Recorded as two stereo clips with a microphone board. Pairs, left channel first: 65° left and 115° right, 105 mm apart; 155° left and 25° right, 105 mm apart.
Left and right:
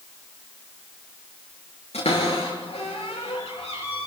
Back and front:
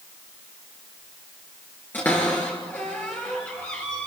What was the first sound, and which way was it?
A cupboard door, 85° left.